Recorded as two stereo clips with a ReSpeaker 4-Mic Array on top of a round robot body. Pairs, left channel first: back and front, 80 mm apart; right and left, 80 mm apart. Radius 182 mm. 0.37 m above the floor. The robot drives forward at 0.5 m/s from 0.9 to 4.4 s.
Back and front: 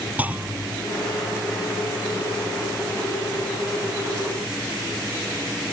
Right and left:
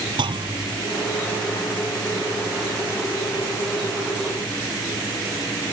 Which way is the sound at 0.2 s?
70° left.